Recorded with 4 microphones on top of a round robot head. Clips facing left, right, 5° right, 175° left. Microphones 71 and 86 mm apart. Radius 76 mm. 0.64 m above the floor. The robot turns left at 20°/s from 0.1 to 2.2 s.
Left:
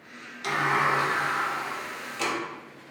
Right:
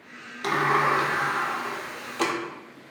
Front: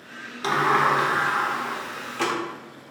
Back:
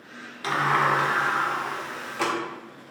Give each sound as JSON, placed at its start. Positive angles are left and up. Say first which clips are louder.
{"t": 0.4, "sound": "a sliding door", "louder": "right 2 dB, front 2 dB", "azimuth_deg": -65, "distance_m": 0.7}